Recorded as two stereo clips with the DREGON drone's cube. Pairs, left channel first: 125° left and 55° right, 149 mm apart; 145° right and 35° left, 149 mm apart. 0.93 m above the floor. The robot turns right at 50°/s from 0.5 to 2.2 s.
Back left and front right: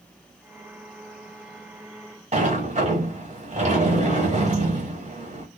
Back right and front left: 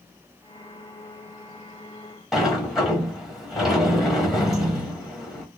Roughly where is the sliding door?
Ahead right.